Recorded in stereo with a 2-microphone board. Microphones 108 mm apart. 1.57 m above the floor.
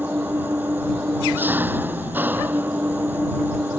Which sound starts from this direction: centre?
An engine running, at 0.0 s.